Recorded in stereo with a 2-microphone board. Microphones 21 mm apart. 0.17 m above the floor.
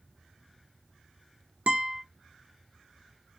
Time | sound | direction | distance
1.7 | a guitar | 70° right (ahead or behind) | 0.7 m